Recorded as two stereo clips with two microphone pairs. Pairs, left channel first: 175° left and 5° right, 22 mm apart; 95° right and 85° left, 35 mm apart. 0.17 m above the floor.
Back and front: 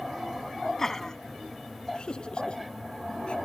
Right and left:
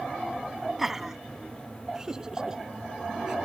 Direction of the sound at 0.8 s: 155° left.